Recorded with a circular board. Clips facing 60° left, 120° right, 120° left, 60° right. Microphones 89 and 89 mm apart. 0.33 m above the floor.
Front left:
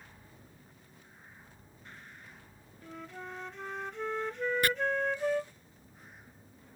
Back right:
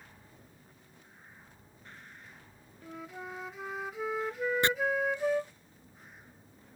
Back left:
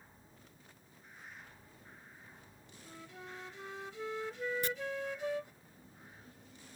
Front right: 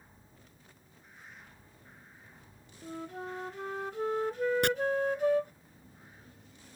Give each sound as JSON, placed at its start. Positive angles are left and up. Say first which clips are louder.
{"t": 2.8, "sound": "a flute", "louder": "back right 1 dB, front right 11 dB", "azimuth_deg": -40}
{"t": 4.6, "sound": "chopping", "louder": "back right 1 dB, front right 10 dB", "azimuth_deg": -55}